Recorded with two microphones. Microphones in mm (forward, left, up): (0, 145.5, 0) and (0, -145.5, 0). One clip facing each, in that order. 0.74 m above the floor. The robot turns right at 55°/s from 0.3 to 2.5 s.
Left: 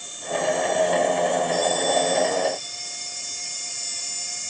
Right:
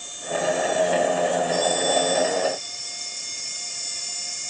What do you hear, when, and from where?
Only background noise.